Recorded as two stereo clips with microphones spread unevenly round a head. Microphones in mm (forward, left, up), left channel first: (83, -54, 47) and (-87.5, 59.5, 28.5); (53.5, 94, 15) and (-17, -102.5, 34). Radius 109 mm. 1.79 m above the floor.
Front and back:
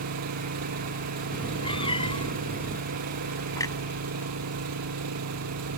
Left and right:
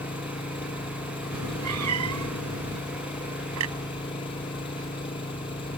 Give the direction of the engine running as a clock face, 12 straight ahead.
7 o'clock.